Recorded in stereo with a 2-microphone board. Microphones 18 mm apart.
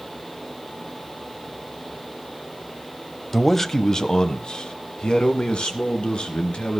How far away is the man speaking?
About 1.0 m.